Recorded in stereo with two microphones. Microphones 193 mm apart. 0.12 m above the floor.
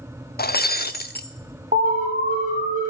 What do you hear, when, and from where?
0.4 s breaking glass: 55° left (ahead or behind), 0.7 m
1.7 s an alarm: 45° right (ahead or behind), 3.5 m